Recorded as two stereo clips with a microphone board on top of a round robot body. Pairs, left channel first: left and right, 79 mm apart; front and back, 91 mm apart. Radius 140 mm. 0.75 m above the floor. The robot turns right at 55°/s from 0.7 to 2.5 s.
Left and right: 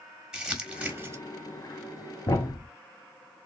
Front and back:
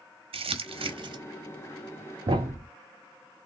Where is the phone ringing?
No phone ringing in this recording.